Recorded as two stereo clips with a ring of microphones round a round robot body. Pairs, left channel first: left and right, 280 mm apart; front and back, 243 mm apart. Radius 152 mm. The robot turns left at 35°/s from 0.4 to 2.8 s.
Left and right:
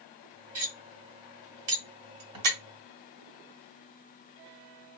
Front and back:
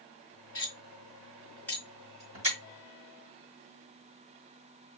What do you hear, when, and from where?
0.6 s cutlery clinking: 45° right, 1.3 m; by 2.6 s 115° right, 1.3 m